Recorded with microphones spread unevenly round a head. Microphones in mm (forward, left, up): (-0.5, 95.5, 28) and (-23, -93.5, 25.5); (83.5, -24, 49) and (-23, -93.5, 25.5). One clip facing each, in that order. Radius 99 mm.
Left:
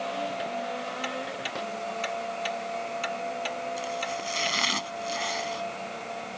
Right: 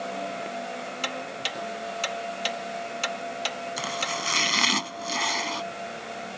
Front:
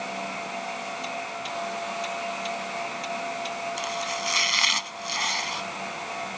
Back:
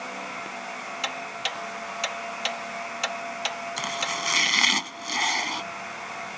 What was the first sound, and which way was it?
Ticking, 135° right.